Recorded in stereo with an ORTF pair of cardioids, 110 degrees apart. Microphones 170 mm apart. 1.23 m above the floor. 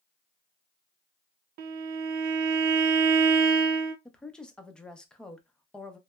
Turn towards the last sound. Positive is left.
turn(degrees=5)